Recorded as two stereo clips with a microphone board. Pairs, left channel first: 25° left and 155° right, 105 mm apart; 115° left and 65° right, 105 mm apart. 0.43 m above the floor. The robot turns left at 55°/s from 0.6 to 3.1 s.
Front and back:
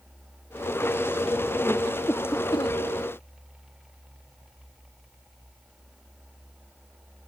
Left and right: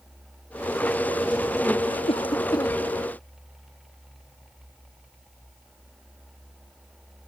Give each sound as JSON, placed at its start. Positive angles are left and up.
{"t": 2.1, "sound": "a cough", "azimuth_deg": 95}